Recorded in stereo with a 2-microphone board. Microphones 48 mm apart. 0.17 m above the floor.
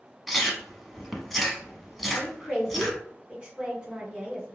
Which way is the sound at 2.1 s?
20° right (ahead or behind).